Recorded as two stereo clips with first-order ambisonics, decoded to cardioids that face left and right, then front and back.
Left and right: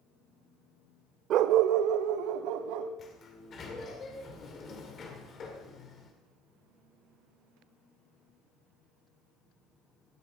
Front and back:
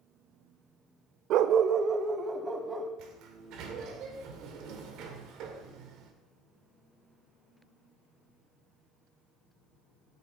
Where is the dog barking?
140° right, 0.5 m; by 2.9 s 100° right, 1.5 m.